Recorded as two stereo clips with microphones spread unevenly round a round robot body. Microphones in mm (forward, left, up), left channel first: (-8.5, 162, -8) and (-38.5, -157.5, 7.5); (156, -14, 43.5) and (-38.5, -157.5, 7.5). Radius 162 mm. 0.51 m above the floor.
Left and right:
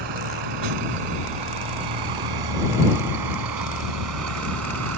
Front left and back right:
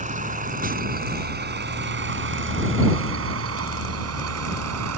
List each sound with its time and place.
0.0 s a vehicle: 85° right; by 5.0 s 140° right